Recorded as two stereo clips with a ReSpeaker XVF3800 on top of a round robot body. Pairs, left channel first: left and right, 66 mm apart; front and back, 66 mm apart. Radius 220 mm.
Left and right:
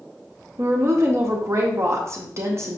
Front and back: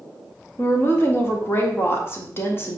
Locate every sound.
0.6 s a woman speaking: 50° right, 1.7 m